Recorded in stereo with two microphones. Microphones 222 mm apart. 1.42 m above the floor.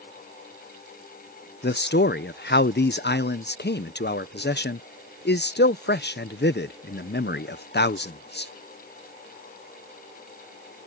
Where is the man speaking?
50° left (ahead or behind).